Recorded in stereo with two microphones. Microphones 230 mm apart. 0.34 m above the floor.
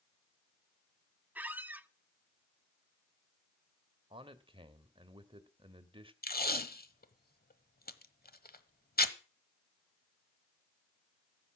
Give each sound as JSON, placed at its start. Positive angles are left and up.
{"t": 1.4, "sound": "a squeak", "side_deg": -5, "distance_m": 0.5}
{"t": 4.1, "sound": "a man speaking", "side_deg": -25, "distance_m": 1.3}
{"t": 6.2, "sound": "tape being pulled", "side_deg": 40, "distance_m": 1.1}